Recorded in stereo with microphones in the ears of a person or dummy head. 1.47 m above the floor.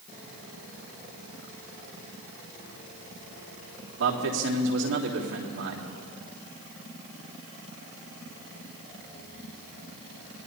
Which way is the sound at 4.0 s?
80° right.